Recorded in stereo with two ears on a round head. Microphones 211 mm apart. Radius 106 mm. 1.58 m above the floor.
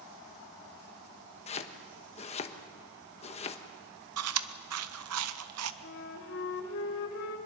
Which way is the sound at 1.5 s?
30° left (ahead or behind).